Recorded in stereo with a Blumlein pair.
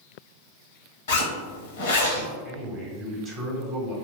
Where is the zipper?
60° left, 0.9 m.